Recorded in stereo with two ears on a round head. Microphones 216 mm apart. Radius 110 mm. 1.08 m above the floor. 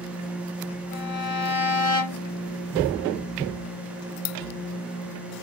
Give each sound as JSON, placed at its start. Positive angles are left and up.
{"t": 0.9, "sound": "a violin", "side_deg": 55, "distance_m": 1.3}